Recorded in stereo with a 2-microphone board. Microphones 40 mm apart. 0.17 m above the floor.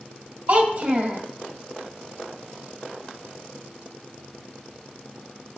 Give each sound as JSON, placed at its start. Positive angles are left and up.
{"t": 0.5, "sound": "a child speaking", "side_deg": -35, "distance_m": 2.5}